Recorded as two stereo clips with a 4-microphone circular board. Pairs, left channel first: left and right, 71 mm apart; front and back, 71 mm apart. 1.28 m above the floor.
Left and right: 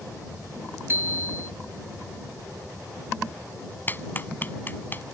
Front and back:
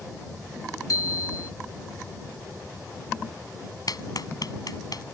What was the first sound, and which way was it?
A bicycle bell, 35° right.